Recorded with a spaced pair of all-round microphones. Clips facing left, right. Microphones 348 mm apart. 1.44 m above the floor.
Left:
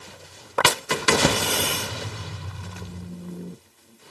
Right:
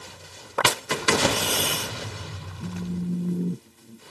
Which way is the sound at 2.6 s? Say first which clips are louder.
Right 12 dB; 35° right (ahead or behind).